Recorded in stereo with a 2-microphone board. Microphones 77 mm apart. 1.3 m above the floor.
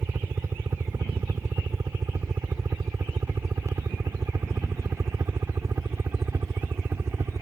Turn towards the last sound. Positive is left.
turn(degrees=-40)  # may be behind; listen again after turning